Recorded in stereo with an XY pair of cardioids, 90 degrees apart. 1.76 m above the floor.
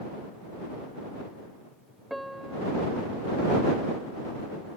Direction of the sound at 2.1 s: 5° right.